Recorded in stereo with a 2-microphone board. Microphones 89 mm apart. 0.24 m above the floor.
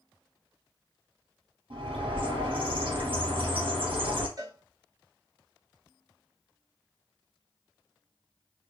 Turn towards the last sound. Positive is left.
turn(degrees=-45)  # may be behind; listen again after turning